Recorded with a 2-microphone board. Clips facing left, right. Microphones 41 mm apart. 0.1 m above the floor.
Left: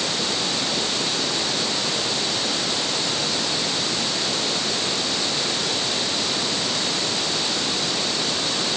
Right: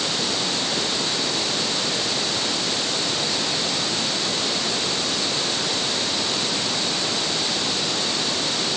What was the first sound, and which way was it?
Only background noise.